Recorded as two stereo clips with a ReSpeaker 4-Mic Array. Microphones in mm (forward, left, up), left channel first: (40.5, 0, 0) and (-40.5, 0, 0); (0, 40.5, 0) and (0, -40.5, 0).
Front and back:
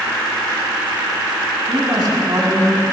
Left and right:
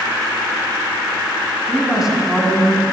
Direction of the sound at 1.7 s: 175° right.